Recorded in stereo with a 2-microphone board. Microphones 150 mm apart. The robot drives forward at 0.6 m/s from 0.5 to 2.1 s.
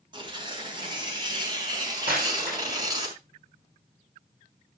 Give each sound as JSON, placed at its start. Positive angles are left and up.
{"t": 0.1, "sound": "tearing paper", "side_deg": -30, "distance_m": 3.5}
{"t": 2.1, "sound": "breaking glass", "side_deg": -80, "distance_m": 8.0}